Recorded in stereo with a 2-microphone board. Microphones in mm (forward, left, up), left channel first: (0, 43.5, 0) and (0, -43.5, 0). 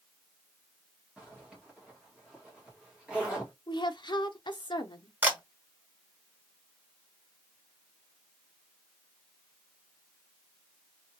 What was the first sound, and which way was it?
A zipper, 10° right (ahead or behind).